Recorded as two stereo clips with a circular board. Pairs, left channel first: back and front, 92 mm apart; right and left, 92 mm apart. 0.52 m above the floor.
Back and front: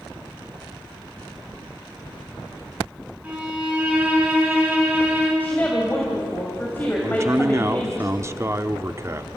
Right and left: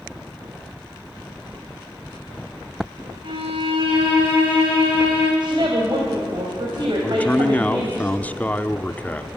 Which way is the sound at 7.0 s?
30° right.